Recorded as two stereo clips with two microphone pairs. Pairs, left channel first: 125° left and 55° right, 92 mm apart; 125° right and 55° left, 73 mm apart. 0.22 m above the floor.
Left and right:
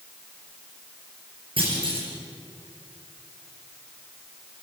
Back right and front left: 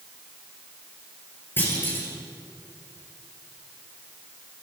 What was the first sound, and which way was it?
A clunk, 65° right.